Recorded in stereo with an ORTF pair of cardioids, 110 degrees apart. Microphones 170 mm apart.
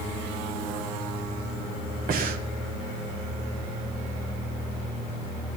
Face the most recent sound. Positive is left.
turn(degrees=-60)